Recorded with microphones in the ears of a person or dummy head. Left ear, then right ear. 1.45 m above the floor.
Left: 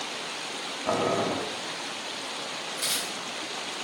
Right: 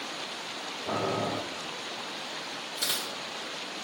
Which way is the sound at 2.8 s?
40° right (ahead or behind).